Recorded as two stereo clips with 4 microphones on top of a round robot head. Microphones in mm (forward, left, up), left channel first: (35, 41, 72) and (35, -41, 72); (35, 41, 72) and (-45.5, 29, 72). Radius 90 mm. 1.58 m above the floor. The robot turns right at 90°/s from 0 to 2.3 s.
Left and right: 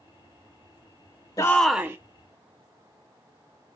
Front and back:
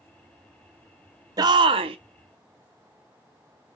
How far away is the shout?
About 0.7 m.